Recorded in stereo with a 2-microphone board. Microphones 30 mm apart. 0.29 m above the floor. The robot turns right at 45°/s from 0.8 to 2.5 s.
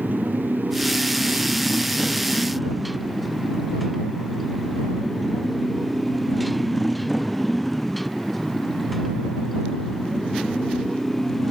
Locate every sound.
0.0 s a motorcycle: 80° right; by 11.5 s 10° left (ahead or behind)